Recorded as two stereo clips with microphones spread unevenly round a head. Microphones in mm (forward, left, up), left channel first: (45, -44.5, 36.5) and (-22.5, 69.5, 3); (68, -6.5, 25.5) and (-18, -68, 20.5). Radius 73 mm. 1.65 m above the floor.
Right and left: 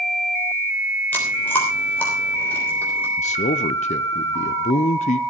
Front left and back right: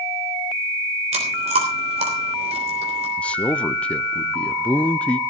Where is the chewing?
130° right, 3.5 m.